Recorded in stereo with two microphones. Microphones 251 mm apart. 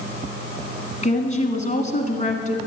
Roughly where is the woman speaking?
Left.